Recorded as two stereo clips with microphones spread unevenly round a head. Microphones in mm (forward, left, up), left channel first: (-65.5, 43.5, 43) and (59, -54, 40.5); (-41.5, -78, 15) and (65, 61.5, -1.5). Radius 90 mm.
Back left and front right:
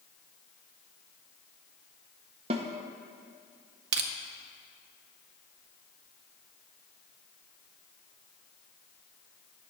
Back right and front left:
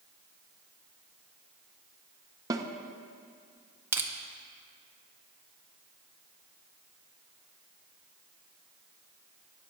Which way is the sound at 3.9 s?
25° right.